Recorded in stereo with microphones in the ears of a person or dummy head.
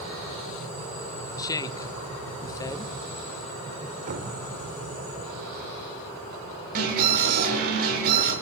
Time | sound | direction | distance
1.4 | a woman speaking | 20° left (ahead or behind) | 1.2 m
4.1 | knocking | 50° right (ahead or behind) | 4 m
6.8 | an alarm | 55° right (ahead or behind) | 8 m